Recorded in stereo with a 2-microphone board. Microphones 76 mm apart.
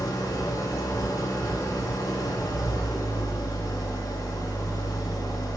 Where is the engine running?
50° left (ahead or behind), 1.2 m.